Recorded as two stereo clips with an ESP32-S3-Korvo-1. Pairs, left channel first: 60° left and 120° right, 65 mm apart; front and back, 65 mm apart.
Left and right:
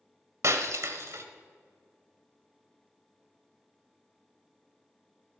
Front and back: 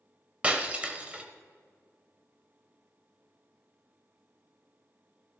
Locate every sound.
0.4 s breaking glass: 115° right, 1.1 m